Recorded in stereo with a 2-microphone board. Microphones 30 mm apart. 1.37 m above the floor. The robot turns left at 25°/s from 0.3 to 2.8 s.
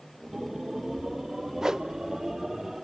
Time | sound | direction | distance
1.6 | a whoosh | 20° right (ahead or behind) | 0.5 m